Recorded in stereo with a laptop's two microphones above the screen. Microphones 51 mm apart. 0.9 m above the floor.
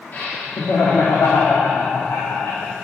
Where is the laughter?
40° left (ahead or behind), 1.6 m; by 2.7 s 65° left (ahead or behind), 3 m.